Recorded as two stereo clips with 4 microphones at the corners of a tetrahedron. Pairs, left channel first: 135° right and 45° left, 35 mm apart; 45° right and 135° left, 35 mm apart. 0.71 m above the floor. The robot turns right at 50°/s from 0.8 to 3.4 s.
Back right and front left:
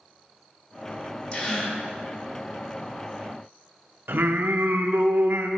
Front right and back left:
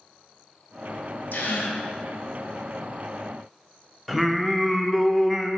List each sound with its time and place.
1.3 s a gasp: 75° right, 1.3 m; by 1.8 s 50° right, 1.3 m
4.1 s singing: 45° left, 0.5 m